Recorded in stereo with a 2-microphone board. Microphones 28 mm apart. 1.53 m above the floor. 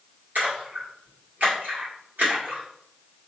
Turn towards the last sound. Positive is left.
turn(degrees=-75)  # may be behind; listen again after turning